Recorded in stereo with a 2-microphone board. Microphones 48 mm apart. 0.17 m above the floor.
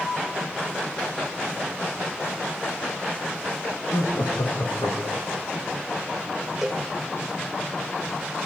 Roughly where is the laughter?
Left.